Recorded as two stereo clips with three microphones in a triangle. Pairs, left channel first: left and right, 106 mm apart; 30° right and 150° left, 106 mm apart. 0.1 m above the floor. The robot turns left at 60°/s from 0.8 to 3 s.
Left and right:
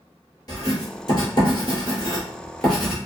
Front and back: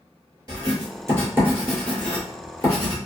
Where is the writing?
120° left, 1.5 m; by 3.0 s 10° right, 1.5 m.